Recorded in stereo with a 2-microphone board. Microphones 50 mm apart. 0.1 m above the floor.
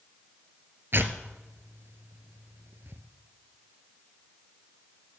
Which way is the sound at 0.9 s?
45° right (ahead or behind).